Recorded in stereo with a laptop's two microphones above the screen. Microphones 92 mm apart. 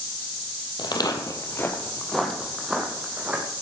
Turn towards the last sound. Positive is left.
turn(degrees=-20)  # may be behind; listen again after turning